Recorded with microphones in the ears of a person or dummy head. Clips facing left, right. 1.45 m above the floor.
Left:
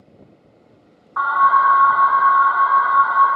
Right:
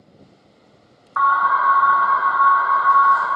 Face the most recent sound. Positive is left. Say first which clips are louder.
# left 2 dB
turn(degrees=-55)  # may be behind; listen again after turning